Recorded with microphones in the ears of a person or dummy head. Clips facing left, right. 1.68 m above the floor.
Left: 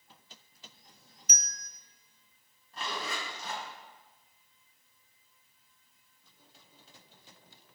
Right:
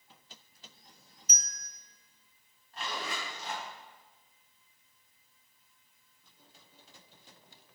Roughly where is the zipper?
Left.